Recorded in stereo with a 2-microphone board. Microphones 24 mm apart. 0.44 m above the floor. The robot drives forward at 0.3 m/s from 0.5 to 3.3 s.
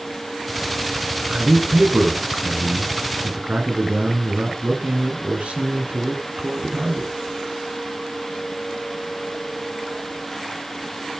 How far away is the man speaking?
About 5 m.